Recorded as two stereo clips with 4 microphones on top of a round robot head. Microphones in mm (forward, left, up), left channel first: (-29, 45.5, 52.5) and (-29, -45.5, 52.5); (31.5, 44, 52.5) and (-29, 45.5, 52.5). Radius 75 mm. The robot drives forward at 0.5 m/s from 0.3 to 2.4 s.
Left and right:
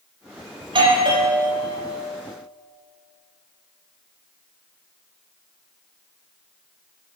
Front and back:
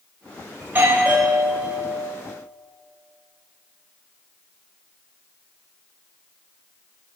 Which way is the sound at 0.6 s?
115° right.